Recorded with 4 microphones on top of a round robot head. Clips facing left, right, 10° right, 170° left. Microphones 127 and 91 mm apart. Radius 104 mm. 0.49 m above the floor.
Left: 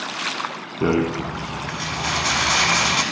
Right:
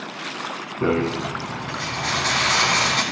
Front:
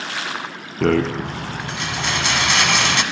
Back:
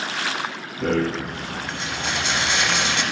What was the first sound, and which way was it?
A rattle, 10° left.